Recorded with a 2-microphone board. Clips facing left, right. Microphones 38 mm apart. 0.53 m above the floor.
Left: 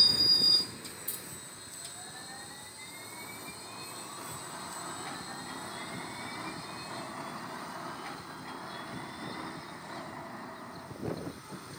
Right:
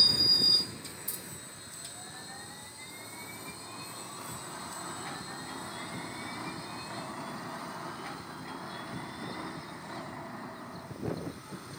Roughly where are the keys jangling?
Left.